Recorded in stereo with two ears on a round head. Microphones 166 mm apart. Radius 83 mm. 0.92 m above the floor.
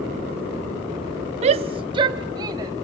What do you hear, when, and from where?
1.4 s a shout: 35° right (ahead or behind), 0.6 m; by 2.7 s 20° right (ahead or behind), 1.8 m